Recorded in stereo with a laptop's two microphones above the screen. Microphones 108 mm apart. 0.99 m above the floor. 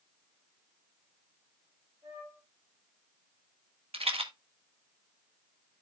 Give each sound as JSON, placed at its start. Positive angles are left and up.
{"t": 2.0, "sound": "a flute", "side_deg": -60, "distance_m": 5.0}
{"t": 3.9, "sound": "a rattle", "side_deg": -70, "distance_m": 1.1}